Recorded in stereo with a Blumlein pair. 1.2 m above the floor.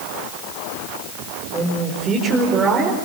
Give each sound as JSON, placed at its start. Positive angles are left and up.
{"t": 1.5, "sound": "a man speaking", "azimuth_deg": -20, "distance_m": 5.0}